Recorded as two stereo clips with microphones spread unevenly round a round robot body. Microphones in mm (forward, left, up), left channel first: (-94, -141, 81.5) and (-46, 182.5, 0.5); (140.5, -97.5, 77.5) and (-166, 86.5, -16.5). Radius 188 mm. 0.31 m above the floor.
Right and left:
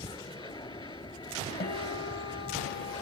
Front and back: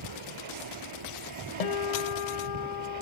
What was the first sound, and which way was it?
An aircraft, 175° right.